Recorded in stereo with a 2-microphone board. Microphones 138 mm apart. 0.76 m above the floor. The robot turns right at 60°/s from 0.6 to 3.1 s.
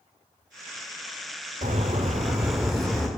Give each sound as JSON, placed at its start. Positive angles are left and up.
{"t": 1.6, "sound": "a bird", "azimuth_deg": -70, "distance_m": 1.4}